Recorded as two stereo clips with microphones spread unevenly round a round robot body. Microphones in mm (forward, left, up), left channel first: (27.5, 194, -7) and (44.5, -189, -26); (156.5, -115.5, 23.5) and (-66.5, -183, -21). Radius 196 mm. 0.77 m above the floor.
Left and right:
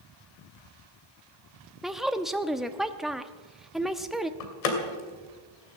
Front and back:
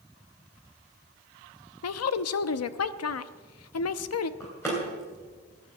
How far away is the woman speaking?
About 0.9 m.